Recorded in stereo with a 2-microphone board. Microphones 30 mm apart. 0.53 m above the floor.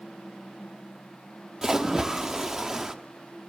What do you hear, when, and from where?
1.6 s a splash: 10° right (ahead or behind), 0.7 m